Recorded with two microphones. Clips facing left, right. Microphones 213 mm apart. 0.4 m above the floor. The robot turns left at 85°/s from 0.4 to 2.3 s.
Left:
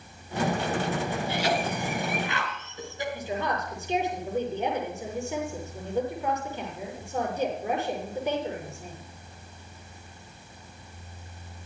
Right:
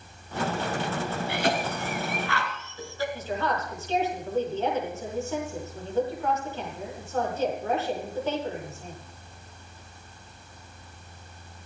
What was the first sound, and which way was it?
A cough, 65° right (ahead or behind).